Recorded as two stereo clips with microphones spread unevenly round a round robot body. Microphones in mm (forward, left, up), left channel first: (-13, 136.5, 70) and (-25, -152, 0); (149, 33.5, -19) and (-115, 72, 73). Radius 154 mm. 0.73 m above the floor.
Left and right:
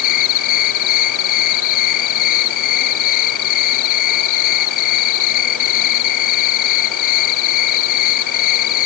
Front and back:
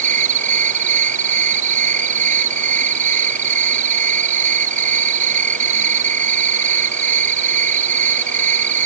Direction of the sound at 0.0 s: 110° left.